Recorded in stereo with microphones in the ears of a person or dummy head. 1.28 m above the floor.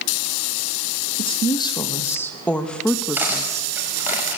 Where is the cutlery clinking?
10° right (ahead or behind), 5 m.